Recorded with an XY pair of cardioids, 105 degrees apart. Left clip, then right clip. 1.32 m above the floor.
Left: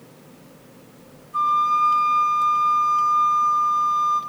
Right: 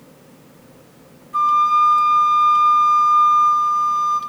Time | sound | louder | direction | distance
1.3 | a flute | right 4 dB | 50° right | 0.9 m